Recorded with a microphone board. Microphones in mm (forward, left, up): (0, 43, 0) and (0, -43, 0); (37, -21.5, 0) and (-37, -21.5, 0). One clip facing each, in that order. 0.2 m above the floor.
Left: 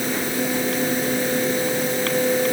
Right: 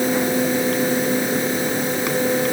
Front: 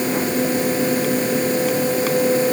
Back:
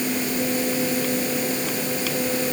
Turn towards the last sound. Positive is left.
No sound to turn to.